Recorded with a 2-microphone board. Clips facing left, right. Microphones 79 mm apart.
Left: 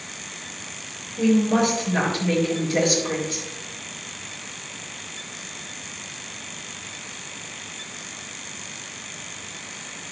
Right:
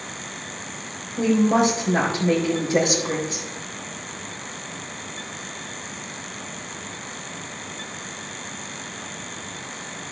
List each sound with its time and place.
1.2 s a woman speaking: 25° right (ahead or behind), 4 m